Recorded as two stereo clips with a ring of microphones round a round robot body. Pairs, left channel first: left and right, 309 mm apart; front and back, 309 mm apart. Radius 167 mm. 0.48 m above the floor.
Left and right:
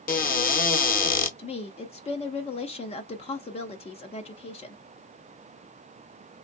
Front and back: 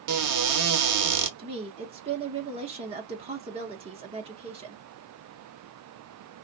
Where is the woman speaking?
135° left, 0.7 m.